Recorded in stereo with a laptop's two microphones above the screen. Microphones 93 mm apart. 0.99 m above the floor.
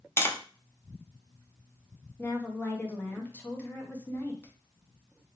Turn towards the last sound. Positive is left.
turn(degrees=20)  # may be behind; listen again after turning